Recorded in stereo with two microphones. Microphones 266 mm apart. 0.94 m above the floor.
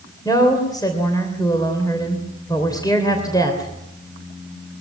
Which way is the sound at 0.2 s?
15° left (ahead or behind).